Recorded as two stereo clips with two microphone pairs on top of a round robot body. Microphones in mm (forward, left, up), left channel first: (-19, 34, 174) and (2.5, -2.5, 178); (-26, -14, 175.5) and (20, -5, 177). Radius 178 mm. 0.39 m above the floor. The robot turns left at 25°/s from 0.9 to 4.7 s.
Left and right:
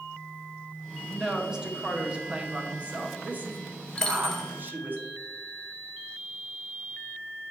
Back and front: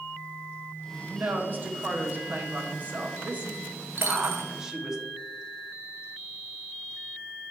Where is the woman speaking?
25° left, 1.7 m; by 5.0 s 65° right, 1.7 m.